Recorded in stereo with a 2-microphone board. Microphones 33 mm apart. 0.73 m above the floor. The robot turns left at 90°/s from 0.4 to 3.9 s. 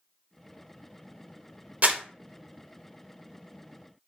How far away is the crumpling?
About 0.6 m.